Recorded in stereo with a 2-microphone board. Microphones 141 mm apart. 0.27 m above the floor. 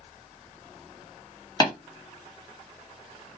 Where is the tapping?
30° left (ahead or behind), 1.8 m.